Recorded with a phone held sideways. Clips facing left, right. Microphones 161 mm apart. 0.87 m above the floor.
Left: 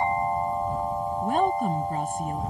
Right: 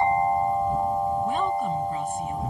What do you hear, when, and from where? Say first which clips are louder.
1.2 s a woman speaking: left 1 dB; 50° left (ahead or behind)